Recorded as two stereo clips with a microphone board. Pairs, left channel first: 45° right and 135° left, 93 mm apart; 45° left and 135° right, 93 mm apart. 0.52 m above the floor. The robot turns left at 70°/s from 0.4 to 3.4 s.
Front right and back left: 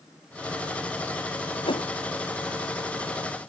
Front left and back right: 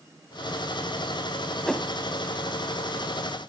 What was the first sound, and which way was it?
A whoosh, 35° right.